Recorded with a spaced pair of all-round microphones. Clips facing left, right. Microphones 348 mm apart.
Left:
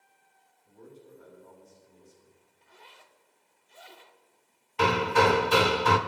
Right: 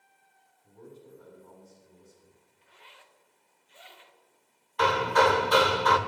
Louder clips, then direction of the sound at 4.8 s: Left 1 dB; 40° left (ahead or behind).